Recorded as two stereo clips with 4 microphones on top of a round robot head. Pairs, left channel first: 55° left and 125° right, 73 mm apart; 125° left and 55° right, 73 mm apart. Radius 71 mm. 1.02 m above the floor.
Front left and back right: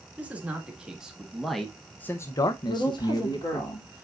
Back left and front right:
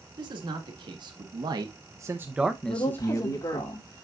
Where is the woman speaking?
90° left, 3 m.